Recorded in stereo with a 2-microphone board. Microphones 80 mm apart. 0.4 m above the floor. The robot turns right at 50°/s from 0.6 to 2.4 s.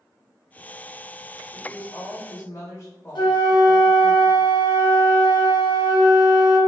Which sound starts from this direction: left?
A flute, at 3.1 s.